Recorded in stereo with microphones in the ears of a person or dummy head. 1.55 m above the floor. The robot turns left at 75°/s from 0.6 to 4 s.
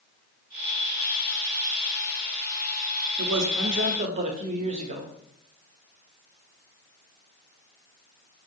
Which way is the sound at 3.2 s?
80° right.